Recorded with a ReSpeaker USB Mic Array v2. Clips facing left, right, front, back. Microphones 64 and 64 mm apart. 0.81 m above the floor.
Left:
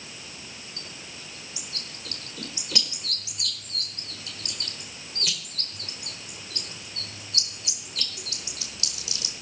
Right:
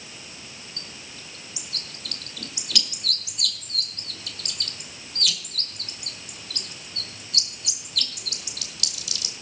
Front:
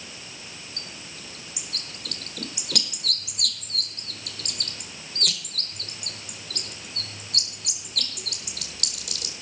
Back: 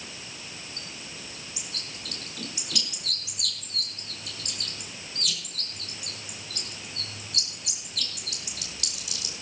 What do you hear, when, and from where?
0.8 s a bird: 30° left, 1.9 m